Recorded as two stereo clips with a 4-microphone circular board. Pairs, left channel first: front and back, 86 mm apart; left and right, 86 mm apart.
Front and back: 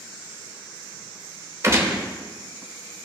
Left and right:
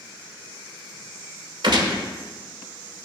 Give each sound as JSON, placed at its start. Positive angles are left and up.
{"t": 1.6, "sound": "a gunshot", "azimuth_deg": -120, "distance_m": 0.9}